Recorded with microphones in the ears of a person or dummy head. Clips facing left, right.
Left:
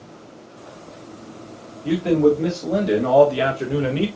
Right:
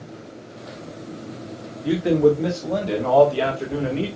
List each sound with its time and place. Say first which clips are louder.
1.8 s a man speaking: left 1 dB; 10° right (ahead or behind), 1.5 m; by 4.1 s 50° left (ahead or behind), 1.2 m